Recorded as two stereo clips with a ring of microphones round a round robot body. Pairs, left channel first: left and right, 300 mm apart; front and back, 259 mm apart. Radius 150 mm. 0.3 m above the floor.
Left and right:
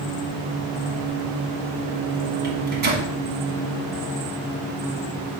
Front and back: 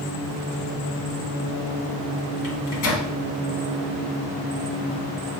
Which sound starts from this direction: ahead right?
A microwave, at 2.4 s.